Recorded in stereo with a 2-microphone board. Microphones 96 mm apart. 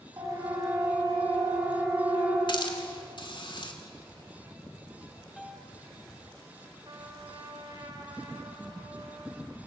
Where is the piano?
5° left (ahead or behind), 1.6 m.